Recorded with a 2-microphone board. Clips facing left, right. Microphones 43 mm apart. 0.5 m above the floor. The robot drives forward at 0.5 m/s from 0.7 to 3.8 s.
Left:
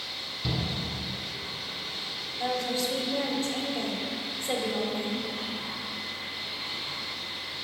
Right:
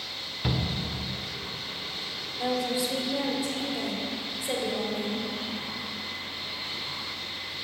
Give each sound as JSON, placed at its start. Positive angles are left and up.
{"t": 0.4, "sound": "a shout", "side_deg": -50, "distance_m": 1.6}
{"t": 2.4, "sound": "a woman speaking", "side_deg": -15, "distance_m": 1.7}